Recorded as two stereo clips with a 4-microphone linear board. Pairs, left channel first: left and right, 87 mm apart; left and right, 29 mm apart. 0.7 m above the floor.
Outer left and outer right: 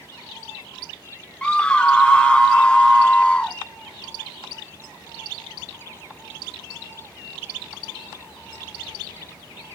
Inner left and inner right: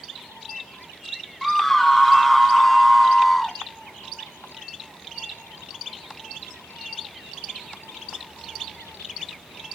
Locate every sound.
1.4 s a scream: 10° left (ahead or behind), 0.8 m